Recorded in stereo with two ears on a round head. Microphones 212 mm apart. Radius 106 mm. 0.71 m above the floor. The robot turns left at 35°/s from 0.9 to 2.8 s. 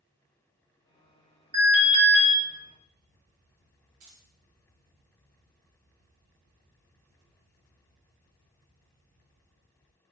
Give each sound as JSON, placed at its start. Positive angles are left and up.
{"t": 1.5, "sound": "an alarm", "side_deg": -30, "distance_m": 1.5}
{"t": 4.0, "sound": "keys jangling", "side_deg": -65, "distance_m": 1.2}